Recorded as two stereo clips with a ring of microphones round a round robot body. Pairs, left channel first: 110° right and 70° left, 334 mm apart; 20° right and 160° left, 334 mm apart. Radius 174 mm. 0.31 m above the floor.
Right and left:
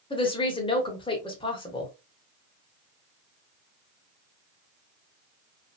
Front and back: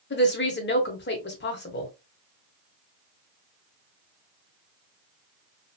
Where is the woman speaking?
50° right, 0.9 m.